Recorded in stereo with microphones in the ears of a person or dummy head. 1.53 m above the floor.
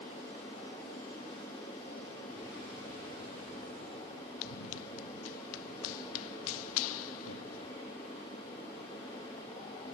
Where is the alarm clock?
No alarm clock in this recording.